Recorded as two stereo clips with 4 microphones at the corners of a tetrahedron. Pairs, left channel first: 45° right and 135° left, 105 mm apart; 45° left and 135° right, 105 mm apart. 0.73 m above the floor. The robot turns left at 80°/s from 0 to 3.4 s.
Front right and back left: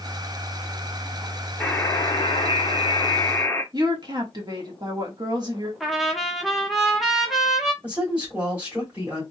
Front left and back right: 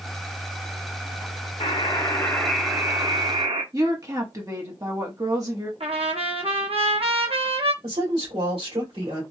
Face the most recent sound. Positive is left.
turn(degrees=-150)